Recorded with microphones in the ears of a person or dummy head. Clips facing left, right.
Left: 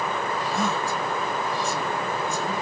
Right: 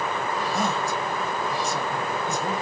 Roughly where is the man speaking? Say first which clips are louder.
Even; right.